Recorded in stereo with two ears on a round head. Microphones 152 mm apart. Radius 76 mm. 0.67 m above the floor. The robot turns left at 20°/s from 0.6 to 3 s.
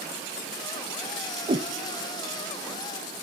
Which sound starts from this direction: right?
A whoosh, at 1.5 s.